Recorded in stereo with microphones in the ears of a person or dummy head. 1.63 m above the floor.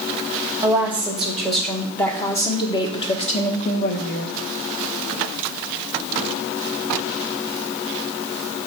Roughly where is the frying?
I don't hear frying.